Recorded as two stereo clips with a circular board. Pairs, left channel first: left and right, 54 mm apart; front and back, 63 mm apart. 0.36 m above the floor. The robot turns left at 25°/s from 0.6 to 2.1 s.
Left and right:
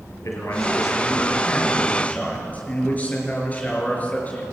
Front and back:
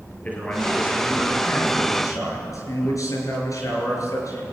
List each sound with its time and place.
0.2 s a man speaking: 65° left, 5.5 m; by 4.4 s 25° left, 5.5 m